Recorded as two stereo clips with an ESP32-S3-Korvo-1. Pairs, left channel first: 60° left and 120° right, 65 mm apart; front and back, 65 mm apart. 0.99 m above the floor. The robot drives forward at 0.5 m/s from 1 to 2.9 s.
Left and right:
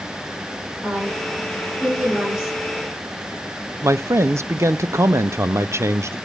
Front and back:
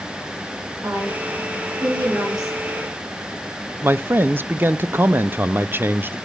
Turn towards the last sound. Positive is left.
turn(degrees=-140)